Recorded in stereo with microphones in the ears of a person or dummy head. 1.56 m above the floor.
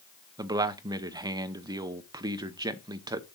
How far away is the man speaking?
About 0.7 m.